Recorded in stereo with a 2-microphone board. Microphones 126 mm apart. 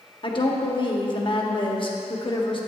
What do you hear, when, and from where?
0.2 s a woman speaking: 45° left (ahead or behind), 1.0 m